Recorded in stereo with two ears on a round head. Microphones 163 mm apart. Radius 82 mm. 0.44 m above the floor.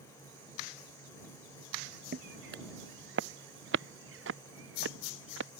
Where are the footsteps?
55° right (ahead or behind); by 5.5 s 75° right (ahead or behind).